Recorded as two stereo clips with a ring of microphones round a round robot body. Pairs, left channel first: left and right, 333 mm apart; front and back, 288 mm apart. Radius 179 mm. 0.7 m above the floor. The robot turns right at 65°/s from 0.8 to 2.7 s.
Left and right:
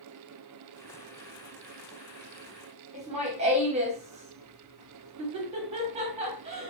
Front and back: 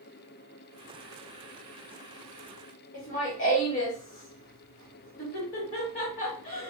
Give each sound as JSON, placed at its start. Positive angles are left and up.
{"t": 2.9, "sound": "laughter", "azimuth_deg": -25, "distance_m": 1.3}